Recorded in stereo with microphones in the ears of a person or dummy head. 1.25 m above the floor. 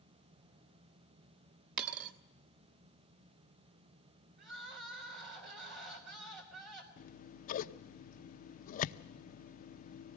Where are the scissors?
50° left (ahead or behind), 0.6 m.